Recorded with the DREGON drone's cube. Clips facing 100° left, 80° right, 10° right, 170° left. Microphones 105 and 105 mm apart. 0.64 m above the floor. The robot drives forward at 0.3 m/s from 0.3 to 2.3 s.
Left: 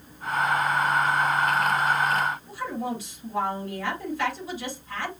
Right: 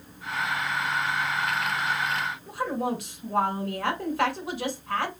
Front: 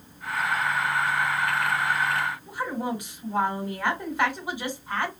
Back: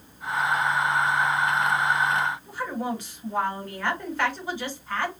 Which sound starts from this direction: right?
A woman speaking, at 2.5 s.